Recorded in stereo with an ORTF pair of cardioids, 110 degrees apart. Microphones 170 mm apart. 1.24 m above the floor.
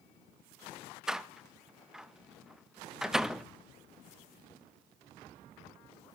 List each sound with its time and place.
1.1 s a door slam: 5° right, 0.8 m